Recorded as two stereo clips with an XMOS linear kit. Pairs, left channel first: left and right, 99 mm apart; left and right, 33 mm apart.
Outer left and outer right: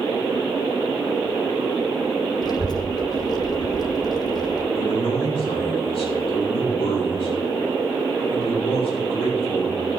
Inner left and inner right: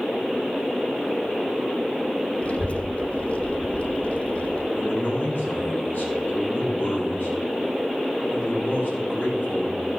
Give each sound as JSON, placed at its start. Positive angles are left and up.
{"t": 2.4, "sound": "a child speaking", "side_deg": 40, "distance_m": 0.9}
{"t": 4.8, "sound": "a man speaking", "side_deg": 70, "distance_m": 4.5}